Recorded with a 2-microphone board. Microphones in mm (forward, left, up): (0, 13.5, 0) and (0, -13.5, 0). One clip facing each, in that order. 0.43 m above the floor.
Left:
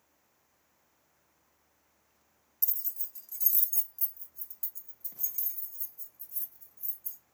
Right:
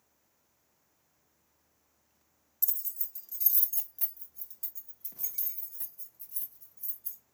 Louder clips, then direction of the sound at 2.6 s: Even; 20° left (ahead or behind).